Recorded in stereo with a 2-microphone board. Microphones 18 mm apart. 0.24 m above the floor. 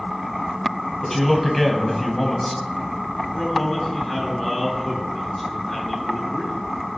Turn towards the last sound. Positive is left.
turn(degrees=20)  # may be behind; listen again after turning